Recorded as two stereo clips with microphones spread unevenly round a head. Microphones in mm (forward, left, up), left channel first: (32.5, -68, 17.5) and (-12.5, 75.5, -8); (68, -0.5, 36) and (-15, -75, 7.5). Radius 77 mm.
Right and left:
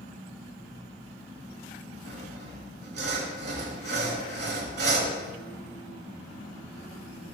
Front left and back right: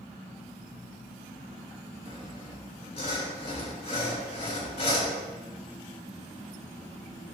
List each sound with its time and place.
2.0 s sawing: 90° left, 5 m